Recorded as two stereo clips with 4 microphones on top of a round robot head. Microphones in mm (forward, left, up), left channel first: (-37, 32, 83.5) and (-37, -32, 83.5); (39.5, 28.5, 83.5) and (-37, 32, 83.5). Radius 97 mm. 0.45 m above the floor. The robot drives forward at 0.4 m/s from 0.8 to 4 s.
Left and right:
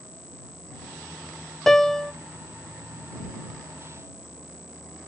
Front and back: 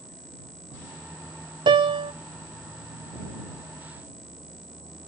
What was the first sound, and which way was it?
A piano, 175° left.